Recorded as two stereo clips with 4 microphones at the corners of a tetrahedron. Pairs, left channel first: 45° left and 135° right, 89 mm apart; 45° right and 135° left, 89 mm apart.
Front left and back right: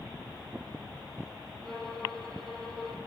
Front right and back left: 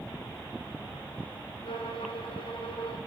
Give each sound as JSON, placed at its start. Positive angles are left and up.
{"t": 1.6, "sound": "a violin", "azimuth_deg": -40, "distance_m": 5.0}